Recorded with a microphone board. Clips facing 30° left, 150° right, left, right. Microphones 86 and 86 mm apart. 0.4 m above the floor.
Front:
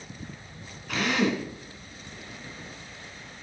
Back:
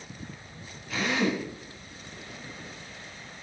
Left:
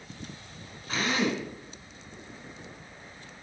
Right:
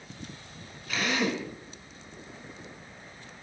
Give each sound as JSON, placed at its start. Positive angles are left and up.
{"t": 0.9, "sound": "a drill", "azimuth_deg": 35, "distance_m": 4.0}